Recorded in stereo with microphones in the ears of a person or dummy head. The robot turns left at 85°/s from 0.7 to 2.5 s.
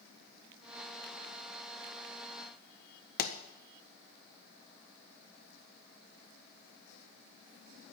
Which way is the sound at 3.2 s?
45° left (ahead or behind).